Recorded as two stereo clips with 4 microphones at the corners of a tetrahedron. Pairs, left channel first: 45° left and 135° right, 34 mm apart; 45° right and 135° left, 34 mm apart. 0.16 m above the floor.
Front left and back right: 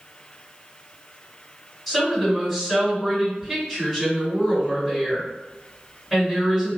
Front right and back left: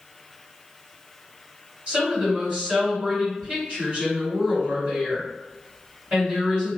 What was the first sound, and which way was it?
A woman speaking, 135° left.